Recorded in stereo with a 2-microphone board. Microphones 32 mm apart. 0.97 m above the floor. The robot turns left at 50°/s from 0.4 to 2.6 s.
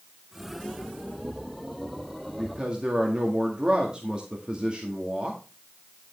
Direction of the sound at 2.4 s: 15° right (ahead or behind).